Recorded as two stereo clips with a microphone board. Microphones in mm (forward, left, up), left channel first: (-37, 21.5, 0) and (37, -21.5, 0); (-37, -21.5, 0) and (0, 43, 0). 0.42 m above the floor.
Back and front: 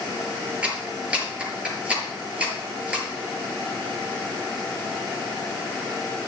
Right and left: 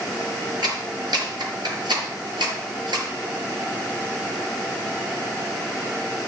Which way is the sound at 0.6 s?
45° left.